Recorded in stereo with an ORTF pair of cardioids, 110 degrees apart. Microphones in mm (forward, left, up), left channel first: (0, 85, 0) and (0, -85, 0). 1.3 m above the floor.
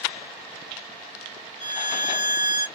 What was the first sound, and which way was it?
A violin, 45° left.